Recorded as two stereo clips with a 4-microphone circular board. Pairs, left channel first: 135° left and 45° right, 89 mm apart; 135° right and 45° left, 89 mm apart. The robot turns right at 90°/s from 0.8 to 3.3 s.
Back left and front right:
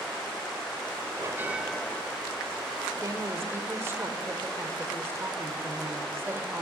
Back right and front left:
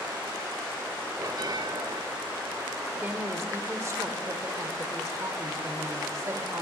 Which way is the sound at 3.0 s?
25° right.